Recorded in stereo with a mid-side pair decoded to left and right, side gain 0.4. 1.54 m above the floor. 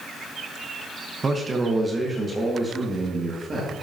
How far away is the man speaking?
About 1.2 m.